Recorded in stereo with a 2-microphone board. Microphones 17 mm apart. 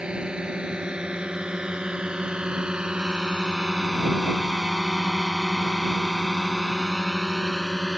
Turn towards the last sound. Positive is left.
turn(degrees=15)  # may be behind; listen again after turning